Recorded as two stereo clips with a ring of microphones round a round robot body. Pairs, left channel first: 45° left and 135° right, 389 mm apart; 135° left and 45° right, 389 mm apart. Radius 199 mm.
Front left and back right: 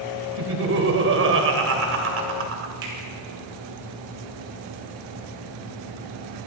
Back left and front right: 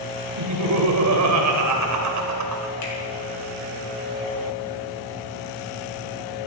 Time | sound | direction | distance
0.4 | laughter | 85° right | 2 m
2.8 | a finger snap | straight behind | 5 m